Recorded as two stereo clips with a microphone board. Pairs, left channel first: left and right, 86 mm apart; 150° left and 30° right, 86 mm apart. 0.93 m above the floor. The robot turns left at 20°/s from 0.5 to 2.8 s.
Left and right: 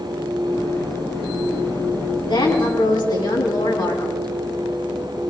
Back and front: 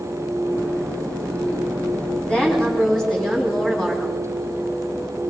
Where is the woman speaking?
75° left, 8.5 m; by 4.2 s 65° left, 8.5 m.